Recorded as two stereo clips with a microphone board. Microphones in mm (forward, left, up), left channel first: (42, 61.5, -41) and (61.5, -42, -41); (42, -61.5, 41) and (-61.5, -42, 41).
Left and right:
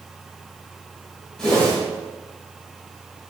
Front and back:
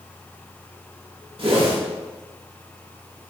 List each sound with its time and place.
1.4 s a whoosh: 175° right, 1.0 m